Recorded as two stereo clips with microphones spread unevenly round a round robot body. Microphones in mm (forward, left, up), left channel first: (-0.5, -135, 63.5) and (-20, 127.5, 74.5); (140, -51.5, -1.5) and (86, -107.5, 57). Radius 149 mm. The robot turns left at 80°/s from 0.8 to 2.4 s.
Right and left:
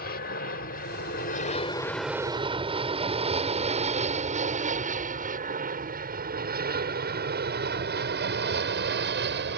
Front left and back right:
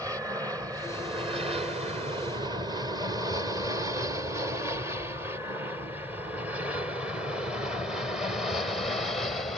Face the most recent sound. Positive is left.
turn(degrees=65)